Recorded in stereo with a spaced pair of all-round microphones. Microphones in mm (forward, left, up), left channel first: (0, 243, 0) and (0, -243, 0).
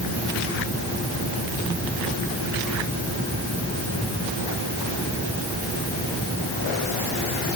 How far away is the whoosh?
I don't hear a whoosh.